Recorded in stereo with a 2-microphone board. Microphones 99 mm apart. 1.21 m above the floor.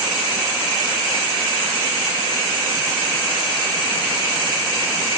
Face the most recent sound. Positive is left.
No sound to turn to.